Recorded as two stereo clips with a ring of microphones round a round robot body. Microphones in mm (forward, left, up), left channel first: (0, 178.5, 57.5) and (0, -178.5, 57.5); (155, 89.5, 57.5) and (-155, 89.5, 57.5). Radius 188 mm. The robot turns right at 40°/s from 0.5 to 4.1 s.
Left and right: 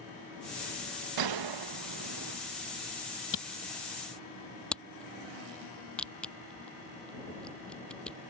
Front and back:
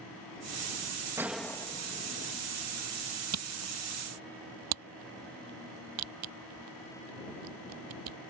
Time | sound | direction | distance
1.2 | a gunshot | 100° right | ?
3.3 | a camera shutter | 145° left | ?